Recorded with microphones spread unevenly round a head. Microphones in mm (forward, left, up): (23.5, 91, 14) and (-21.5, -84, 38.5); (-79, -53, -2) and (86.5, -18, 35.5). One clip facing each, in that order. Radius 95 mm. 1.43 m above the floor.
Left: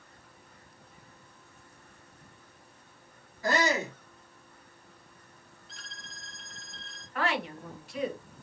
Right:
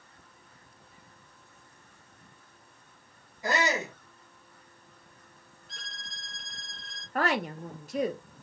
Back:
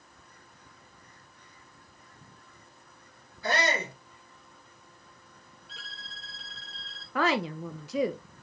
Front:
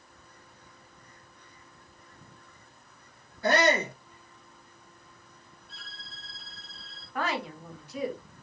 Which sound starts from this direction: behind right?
A violin, at 5.7 s.